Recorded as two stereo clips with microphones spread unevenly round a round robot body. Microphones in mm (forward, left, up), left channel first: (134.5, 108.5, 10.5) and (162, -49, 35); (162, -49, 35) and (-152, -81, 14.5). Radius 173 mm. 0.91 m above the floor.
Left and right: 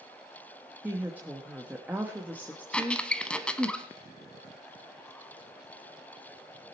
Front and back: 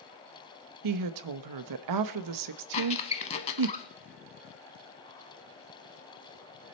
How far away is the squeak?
About 0.8 m.